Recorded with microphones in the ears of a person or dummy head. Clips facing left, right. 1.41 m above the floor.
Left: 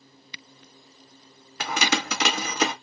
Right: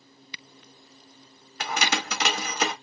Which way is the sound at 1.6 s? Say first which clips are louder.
Left 2 dB; 60° left (ahead or behind).